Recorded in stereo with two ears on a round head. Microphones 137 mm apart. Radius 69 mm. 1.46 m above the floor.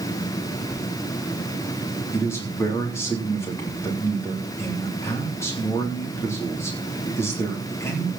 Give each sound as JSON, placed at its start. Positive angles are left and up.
{"t": 0.7, "sound": "a sliding door", "side_deg": -50, "distance_m": 9.5}
{"t": 2.1, "sound": "a man speaking", "side_deg": 15, "distance_m": 3.5}